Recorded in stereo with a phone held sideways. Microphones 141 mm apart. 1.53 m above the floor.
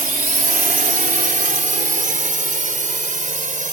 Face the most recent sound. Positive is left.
turn(degrees=-65)  # may be behind; listen again after turning